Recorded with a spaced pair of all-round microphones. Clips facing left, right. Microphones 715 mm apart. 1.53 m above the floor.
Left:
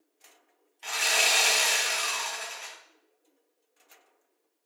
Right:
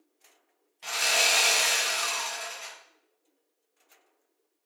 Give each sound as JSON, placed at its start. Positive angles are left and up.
{"t": 0.8, "sound": "sawing", "side_deg": -70, "distance_m": 1.2}